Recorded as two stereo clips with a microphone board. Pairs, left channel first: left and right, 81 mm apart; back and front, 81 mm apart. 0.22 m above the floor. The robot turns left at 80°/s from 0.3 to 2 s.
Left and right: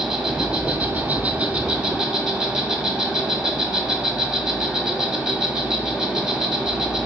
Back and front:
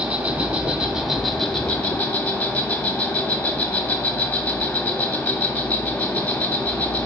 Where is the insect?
20° right, 1.2 m; by 7.0 s 160° right, 1.2 m.